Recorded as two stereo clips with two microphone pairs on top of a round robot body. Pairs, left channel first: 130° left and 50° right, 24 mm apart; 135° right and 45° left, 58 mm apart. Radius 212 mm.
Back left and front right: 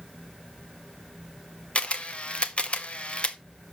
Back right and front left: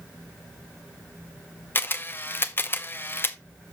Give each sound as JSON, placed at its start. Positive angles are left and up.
{"t": 1.8, "sound": "a camera shutter", "azimuth_deg": 170, "distance_m": 0.9}